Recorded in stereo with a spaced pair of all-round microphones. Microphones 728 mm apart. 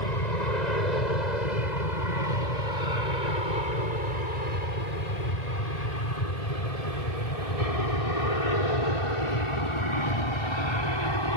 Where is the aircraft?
75° left (ahead or behind); by 11.4 s 35° left (ahead or behind).